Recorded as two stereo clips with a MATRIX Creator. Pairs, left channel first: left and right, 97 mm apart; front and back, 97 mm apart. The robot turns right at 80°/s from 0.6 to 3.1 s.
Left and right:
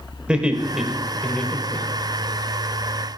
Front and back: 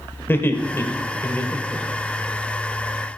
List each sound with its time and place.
0.3 s laughter: 25° right, 1.4 m; by 2.3 s 110° left, 1.4 m